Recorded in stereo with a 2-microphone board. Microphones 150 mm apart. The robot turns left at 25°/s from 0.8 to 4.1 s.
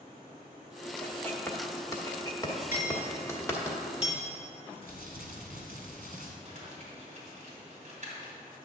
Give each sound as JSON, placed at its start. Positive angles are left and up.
{"t": 1.0, "sound": "writing", "side_deg": 10, "distance_m": 1.4}
{"t": 2.7, "sound": "hammering", "side_deg": 65, "distance_m": 2.5}
{"t": 4.8, "sound": "crumpling", "side_deg": -90, "distance_m": 1.6}
{"t": 6.5, "sound": "crumpling", "side_deg": -55, "distance_m": 3.0}